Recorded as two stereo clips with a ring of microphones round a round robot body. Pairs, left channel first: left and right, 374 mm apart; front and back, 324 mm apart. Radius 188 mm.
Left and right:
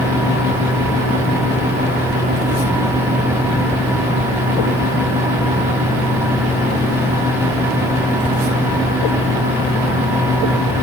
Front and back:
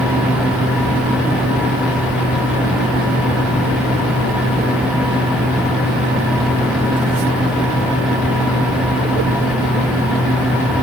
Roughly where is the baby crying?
No baby crying in this recording.